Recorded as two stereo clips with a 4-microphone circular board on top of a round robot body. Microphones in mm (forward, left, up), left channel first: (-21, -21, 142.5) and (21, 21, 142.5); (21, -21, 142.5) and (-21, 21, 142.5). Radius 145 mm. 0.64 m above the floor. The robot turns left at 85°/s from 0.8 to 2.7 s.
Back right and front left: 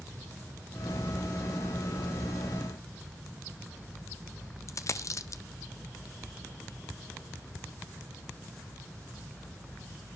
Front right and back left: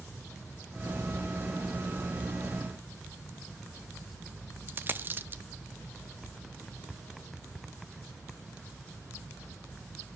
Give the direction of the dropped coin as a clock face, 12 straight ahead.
6 o'clock.